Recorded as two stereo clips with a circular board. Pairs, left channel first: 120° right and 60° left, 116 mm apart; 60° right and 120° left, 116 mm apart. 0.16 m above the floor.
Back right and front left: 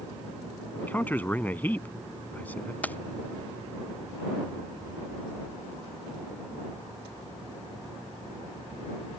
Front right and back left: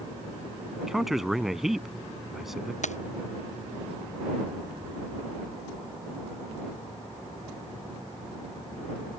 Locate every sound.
0.8 s a man speaking: 155° right
2.8 s keys jangling: 45° right